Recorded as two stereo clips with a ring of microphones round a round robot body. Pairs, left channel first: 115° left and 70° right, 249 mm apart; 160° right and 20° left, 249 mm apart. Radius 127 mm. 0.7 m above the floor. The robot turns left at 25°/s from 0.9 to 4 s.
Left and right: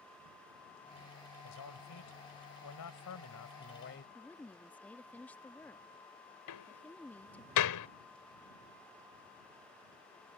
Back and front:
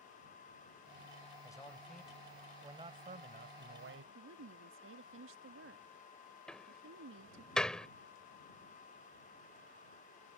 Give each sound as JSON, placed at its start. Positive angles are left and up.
{"t": 1.4, "sound": "a man speaking", "azimuth_deg": 125}
{"t": 4.2, "sound": "a woman speaking", "azimuth_deg": 30}
{"t": 6.5, "sound": "a door slam", "azimuth_deg": 115}